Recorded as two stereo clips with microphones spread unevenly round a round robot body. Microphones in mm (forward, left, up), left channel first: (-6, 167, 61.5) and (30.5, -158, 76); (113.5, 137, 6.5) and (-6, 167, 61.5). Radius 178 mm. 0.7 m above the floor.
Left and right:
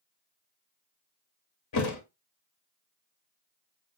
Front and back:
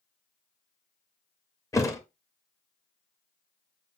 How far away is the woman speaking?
No woman speaking in this recording.